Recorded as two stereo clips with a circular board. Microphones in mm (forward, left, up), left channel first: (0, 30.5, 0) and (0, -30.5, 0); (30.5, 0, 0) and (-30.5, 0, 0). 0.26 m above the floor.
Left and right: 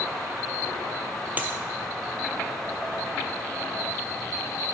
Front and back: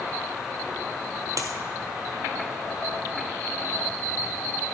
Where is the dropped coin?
150° right, 0.9 m.